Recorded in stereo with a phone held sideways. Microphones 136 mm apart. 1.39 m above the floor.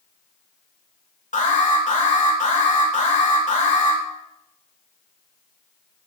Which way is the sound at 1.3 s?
75° left (ahead or behind).